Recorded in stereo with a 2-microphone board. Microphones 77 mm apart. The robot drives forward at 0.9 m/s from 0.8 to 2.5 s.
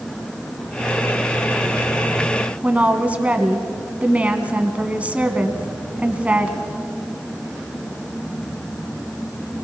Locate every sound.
2.6 s a woman speaking: 15° right (ahead or behind), 1.8 m